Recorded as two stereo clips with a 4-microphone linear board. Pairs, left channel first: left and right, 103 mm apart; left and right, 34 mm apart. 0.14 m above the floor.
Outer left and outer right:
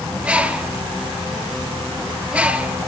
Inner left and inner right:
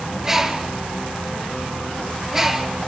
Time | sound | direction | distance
0.2 | a bird | 10° right (ahead or behind) | 1.1 m